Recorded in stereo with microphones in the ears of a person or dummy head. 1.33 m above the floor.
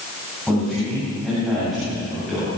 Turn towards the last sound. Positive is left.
turn(degrees=0)  # may be behind; listen again after turning